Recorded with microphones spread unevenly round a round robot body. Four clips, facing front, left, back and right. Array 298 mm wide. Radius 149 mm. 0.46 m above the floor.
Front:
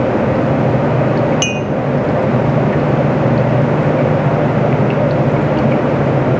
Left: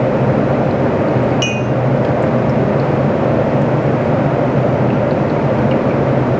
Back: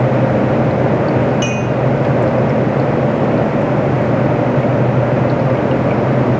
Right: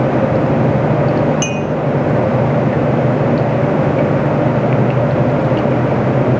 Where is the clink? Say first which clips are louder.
Even, back 1 dB; 10° right, 0.6 m.